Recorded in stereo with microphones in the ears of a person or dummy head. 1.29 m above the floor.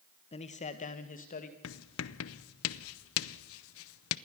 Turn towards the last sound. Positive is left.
turn(degrees=70)  # may be behind; listen again after turning